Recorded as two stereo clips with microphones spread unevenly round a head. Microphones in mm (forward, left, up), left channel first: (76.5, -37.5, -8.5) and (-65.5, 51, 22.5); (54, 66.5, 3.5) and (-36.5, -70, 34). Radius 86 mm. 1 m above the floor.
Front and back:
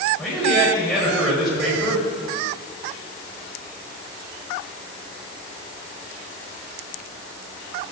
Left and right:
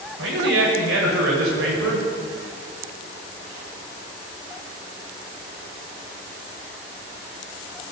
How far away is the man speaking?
About 6 m.